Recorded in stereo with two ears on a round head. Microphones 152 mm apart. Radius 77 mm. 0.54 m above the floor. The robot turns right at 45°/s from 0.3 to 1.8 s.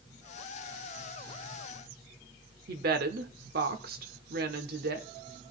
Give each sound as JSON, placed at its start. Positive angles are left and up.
{"t": 2.7, "sound": "a woman speaking", "side_deg": -60, "distance_m": 1.2}